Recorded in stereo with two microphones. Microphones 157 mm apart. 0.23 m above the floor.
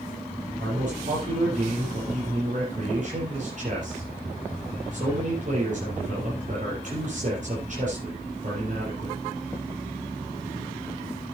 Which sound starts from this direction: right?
A man speaking, at 0.6 s.